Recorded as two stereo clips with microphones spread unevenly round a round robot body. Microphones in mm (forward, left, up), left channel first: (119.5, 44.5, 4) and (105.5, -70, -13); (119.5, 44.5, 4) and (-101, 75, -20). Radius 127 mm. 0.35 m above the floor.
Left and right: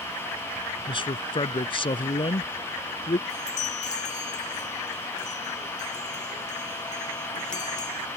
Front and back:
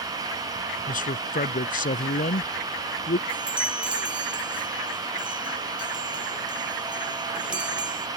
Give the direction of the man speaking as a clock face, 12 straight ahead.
11 o'clock.